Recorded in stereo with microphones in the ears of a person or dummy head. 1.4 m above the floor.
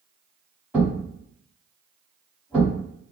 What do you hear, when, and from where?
0.7 s a thud: 5° right (ahead or behind), 1.4 m